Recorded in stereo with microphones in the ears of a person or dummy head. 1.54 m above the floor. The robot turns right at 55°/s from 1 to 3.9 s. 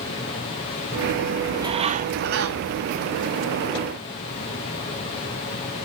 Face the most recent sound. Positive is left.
turn(degrees=-25)